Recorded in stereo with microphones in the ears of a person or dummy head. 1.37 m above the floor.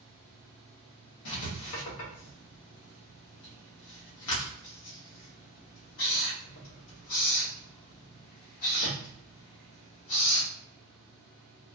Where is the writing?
70° left (ahead or behind), 1.3 m.